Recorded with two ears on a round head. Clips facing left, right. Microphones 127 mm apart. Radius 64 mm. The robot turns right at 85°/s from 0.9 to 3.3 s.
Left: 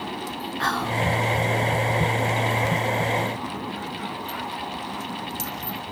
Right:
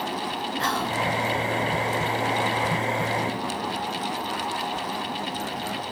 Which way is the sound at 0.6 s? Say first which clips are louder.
Left 2 dB; 20° right (ahead or behind).